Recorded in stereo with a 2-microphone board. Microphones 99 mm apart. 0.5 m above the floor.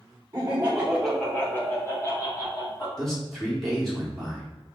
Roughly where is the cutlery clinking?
I don't hear cutlery clinking.